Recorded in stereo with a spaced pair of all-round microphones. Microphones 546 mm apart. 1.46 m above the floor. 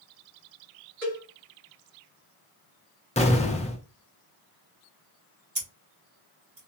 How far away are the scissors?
About 2.5 m.